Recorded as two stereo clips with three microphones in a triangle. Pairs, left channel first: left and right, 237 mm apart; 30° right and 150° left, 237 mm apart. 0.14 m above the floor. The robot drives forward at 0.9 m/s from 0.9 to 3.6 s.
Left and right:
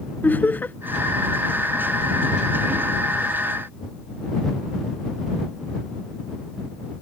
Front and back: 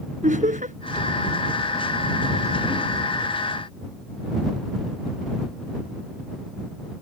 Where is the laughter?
165° left.